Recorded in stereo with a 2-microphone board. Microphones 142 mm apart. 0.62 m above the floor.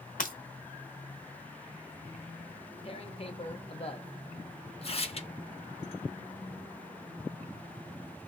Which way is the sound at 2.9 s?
45° left (ahead or behind).